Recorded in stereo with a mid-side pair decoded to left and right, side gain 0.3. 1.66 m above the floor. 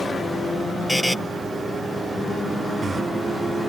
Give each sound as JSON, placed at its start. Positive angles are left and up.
{"t": 0.9, "sound": "a buzzer", "azimuth_deg": 10}